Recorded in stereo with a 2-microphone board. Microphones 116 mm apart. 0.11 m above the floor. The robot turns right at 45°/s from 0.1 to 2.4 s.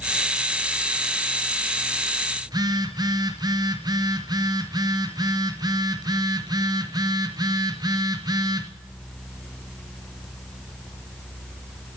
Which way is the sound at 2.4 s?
35° right (ahead or behind).